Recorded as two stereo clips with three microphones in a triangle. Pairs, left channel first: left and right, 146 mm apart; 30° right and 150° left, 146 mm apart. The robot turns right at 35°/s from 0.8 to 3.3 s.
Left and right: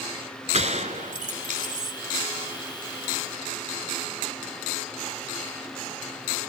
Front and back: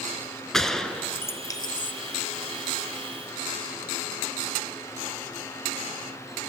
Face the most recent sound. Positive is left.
turn(degrees=-30)